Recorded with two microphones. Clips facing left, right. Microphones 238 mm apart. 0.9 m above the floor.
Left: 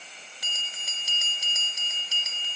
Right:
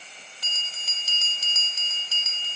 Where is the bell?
15° left (ahead or behind).